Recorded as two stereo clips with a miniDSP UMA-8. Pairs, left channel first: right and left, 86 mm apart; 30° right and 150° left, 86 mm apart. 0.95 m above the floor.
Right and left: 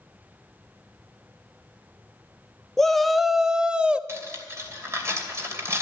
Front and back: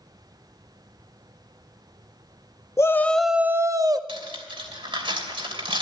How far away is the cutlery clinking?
About 2.5 m.